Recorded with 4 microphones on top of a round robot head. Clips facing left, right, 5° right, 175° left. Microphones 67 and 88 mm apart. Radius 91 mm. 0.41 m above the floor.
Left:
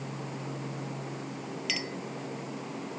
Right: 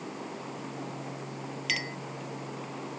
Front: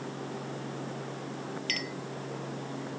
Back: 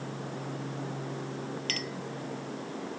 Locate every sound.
1.7 s a clink: 125° right